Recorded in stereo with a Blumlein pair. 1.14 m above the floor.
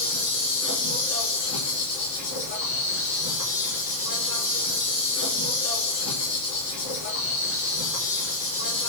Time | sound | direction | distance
0.0 | an insect | 55° left | 5 m